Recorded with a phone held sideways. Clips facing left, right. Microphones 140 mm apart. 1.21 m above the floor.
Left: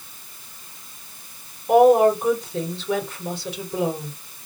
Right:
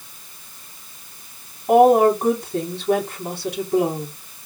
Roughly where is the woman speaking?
Right.